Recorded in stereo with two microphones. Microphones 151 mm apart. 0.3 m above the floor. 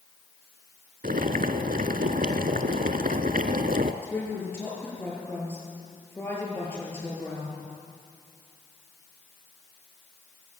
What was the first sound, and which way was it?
Boiling, 70° right (ahead or behind).